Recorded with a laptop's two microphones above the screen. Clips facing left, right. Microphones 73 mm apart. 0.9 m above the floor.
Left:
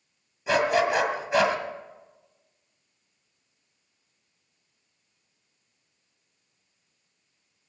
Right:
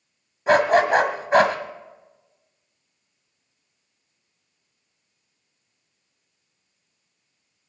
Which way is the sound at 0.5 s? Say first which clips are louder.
Right 6 dB; 50° right (ahead or behind).